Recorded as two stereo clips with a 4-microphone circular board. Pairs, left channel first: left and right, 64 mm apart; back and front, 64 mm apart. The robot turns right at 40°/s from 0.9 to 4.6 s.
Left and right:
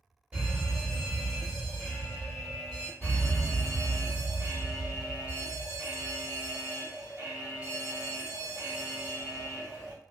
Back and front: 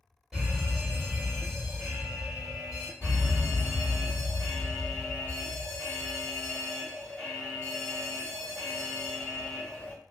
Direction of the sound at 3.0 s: 150° left.